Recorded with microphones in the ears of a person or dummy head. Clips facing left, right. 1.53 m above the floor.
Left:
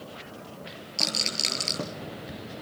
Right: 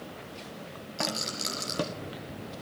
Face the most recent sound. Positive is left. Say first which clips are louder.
# right 1 dB
turn(degrees=45)  # may be behind; listen again after turning